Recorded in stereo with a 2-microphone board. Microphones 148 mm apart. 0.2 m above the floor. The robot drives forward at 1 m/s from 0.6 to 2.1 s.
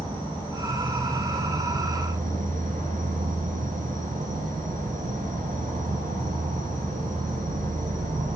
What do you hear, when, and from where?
0.0 s an insect: 30° right (ahead or behind), 2.0 m; by 8.4 s 70° right (ahead or behind), 1.1 m